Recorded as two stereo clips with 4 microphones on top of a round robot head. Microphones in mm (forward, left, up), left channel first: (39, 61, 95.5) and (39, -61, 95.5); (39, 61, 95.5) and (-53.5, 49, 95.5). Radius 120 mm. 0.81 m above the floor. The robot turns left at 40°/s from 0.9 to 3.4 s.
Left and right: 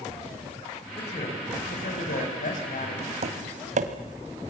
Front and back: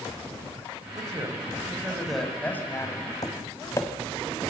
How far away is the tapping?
About 1.6 m.